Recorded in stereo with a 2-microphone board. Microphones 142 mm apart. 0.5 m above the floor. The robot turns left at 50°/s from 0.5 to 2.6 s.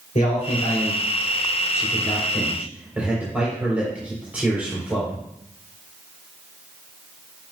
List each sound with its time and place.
0.1 s a man speaking: 65° left (ahead or behind), 3 m; by 5.2 s 10° right (ahead or behind), 3 m